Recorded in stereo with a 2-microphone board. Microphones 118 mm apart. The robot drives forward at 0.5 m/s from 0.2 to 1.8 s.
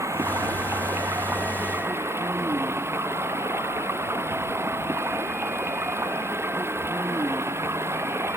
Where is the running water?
25° right (ahead or behind); by 8.4 s 20° right (ahead or behind).